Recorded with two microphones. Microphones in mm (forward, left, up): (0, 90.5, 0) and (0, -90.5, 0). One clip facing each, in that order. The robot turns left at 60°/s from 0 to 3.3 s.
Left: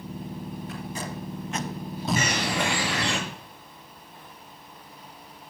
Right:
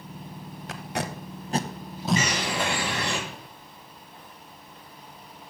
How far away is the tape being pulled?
About 0.8 m.